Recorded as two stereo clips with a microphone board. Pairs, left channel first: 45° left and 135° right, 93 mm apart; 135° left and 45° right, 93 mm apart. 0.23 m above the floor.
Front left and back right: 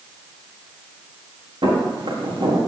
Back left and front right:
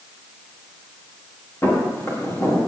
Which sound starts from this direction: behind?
Footsteps, at 1.6 s.